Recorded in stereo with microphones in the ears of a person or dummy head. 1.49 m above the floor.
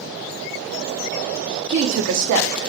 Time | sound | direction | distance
1.7 | a woman speaking | 65° right (ahead or behind) | 0.6 m